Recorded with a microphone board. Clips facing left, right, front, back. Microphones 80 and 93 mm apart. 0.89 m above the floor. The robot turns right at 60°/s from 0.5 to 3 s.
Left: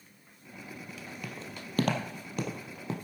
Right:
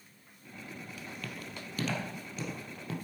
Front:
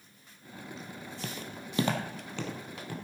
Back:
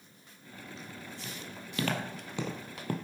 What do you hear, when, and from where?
1.2 s footsteps: 15° left, 1.6 m; by 3.0 s 150° left, 1.9 m